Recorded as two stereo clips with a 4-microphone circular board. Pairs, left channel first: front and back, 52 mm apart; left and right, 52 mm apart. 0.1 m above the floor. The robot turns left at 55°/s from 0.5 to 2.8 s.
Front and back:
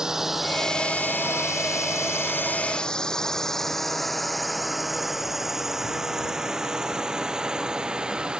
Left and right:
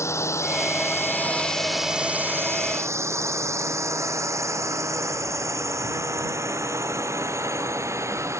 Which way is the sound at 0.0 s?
100° left.